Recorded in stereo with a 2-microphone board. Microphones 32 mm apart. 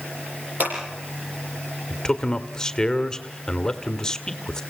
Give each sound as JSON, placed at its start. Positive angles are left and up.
{"t": 0.6, "sound": "scissors", "side_deg": -60, "distance_m": 8.5}
{"t": 1.9, "sound": "a man speaking", "side_deg": 20, "distance_m": 1.4}